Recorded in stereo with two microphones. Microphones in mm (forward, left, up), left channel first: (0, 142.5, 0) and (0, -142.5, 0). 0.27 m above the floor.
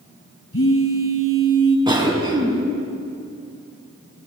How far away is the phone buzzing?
About 1.3 m.